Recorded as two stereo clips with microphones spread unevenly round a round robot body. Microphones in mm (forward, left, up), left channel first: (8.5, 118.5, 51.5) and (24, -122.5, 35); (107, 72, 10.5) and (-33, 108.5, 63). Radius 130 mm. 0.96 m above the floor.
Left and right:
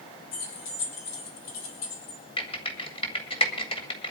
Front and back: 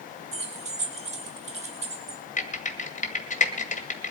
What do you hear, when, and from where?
0.3 s keys jangling: 120° left, 3.5 m
2.4 s typing on a keyboard: 25° left, 2 m